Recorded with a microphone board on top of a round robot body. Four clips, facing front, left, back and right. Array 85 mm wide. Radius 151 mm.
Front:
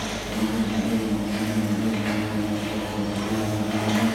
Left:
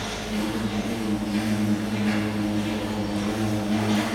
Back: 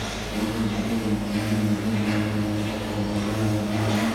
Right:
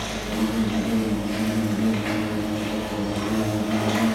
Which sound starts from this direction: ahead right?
An insect, at 0.0 s.